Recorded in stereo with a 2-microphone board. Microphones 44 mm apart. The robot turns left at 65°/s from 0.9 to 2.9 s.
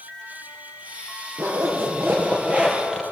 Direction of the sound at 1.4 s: 80° right.